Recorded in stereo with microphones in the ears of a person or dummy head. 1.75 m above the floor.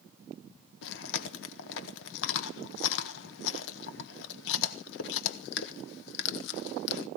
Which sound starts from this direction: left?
Chewing, at 0.8 s.